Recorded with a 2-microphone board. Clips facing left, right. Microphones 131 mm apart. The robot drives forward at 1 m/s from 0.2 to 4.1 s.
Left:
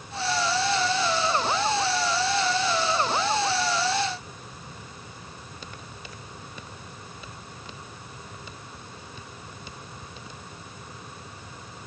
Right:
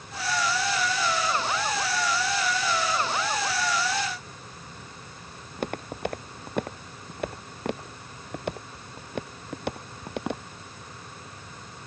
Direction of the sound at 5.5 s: 60° right (ahead or behind).